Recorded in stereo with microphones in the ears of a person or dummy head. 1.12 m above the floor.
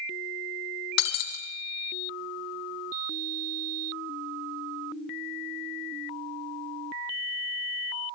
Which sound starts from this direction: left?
Breaking glass, at 1.0 s.